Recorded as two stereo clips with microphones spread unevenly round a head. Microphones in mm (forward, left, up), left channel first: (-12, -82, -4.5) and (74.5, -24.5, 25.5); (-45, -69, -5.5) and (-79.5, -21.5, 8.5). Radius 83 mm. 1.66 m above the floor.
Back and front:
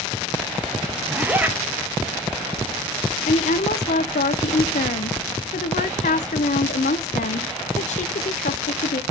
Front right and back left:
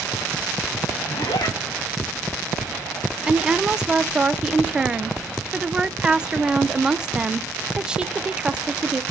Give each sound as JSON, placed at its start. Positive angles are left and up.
{"t": 1.1, "sound": "a zipper", "azimuth_deg": -30, "distance_m": 1.0}
{"t": 3.3, "sound": "a woman speaking", "azimuth_deg": -170, "distance_m": 0.6}